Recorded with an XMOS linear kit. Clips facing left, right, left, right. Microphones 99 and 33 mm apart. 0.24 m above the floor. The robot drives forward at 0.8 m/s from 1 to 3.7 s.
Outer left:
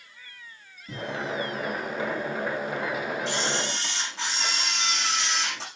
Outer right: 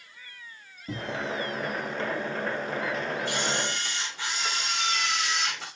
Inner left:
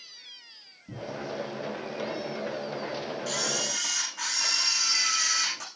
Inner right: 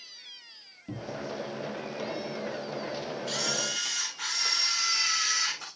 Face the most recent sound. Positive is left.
turn(degrees=85)